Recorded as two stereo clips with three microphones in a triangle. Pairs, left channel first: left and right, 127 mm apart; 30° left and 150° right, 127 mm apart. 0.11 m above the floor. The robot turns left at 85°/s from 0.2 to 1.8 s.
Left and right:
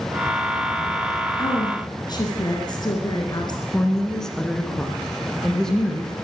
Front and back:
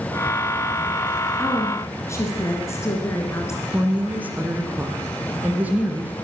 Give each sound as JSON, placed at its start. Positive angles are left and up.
{"t": 1.4, "sound": "a woman speaking", "azimuth_deg": 115, "distance_m": 1.7}
{"t": 3.7, "sound": "a woman speaking", "azimuth_deg": 165, "distance_m": 1.5}